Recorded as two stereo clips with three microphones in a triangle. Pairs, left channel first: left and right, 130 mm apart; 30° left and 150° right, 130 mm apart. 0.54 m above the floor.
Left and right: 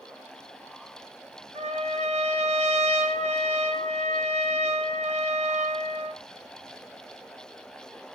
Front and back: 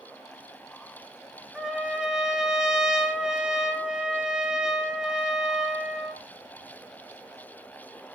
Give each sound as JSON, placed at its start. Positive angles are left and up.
{"t": 1.6, "sound": "a trumpet", "azimuth_deg": -65, "distance_m": 1.4}